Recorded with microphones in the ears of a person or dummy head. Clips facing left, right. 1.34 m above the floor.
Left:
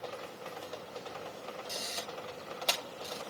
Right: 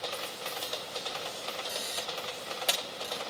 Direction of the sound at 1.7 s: 10° right (ahead or behind).